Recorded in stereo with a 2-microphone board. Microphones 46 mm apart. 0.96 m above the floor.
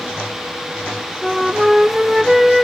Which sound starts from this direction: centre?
A flute, at 1.2 s.